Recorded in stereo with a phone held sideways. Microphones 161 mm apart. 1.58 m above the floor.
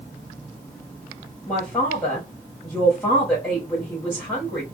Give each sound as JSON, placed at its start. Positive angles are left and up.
{"t": 1.5, "sound": "a man speaking", "side_deg": 10, "distance_m": 1.2}